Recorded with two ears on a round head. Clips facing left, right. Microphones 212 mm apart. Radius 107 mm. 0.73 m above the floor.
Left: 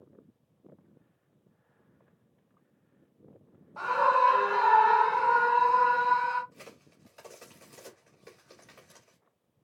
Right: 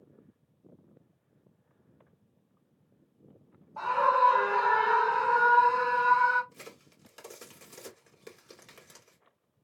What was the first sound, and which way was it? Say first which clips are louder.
A scream: left 1 dB; 25° left (ahead or behind).